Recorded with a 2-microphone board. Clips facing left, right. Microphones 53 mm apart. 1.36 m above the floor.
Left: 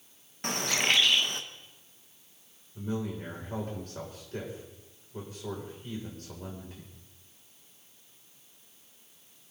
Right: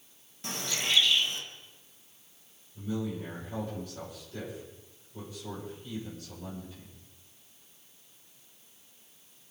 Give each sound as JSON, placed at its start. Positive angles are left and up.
{"t": 0.4, "sound": "a bird", "side_deg": 55, "distance_m": 1.1}
{"t": 2.8, "sound": "a man speaking", "side_deg": 50, "distance_m": 6.5}